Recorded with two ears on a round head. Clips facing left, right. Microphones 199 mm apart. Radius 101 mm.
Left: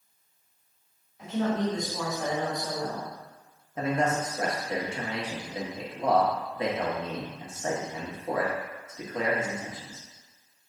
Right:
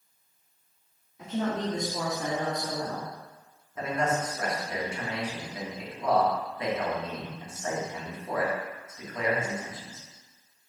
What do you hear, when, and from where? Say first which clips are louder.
1.2 s a woman speaking: left 2 dB; 75° right (ahead or behind), 1.7 m
3.8 s a man speaking: left 2 dB; 25° left (ahead or behind), 1.0 m